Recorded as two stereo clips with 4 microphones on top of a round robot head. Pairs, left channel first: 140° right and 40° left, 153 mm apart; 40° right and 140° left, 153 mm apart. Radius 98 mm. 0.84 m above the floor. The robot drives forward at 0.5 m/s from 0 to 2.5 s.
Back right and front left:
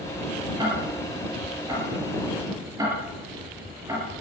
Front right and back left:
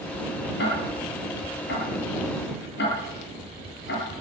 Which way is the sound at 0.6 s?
30° right.